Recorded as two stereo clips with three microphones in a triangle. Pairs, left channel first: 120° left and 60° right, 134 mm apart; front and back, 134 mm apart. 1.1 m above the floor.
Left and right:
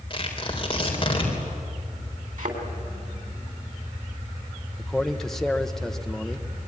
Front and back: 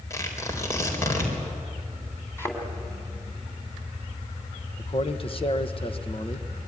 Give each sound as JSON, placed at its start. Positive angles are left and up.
{"t": 0.1, "sound": "tearing paper", "azimuth_deg": 70, "distance_m": 4.0}
{"t": 2.4, "sound": "a thud", "azimuth_deg": -75, "distance_m": 3.5}
{"t": 4.8, "sound": "a man speaking", "azimuth_deg": 35, "distance_m": 1.1}